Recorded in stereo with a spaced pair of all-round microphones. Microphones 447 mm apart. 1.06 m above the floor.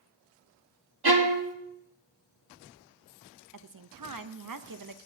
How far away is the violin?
About 1.1 m.